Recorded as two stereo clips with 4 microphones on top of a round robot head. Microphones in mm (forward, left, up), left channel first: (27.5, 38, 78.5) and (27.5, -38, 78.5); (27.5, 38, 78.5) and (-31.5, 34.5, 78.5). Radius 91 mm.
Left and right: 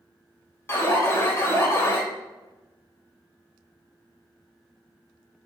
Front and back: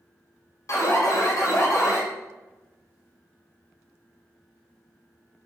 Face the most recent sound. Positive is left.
turn(degrees=30)